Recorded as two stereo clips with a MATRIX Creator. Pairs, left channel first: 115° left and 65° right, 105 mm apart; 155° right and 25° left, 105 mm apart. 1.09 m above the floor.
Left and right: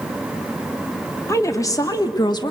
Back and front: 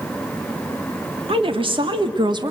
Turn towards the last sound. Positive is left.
turn(degrees=70)